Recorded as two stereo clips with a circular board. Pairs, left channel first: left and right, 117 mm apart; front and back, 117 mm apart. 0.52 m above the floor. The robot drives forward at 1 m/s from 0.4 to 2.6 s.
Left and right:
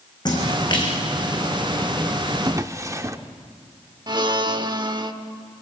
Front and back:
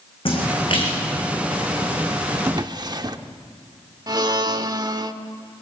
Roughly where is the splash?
Ahead left.